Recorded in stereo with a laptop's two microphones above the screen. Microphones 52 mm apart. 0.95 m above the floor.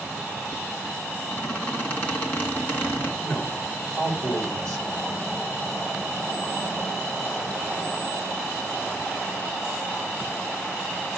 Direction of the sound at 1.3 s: 25° left (ahead or behind).